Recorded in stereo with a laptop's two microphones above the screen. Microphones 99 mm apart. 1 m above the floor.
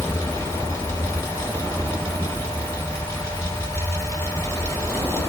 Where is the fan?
30° left (ahead or behind), 1.4 m.